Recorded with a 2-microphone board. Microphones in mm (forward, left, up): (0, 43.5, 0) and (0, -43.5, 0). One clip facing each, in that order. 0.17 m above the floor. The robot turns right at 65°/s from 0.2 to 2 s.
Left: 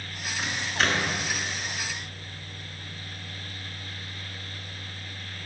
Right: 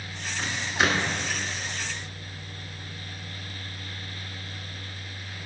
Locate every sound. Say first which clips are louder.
0.4 s a microwave: right 2 dB; 10° left (ahead or behind), 1.3 m; by 1.1 s 30° right (ahead or behind), 1.3 m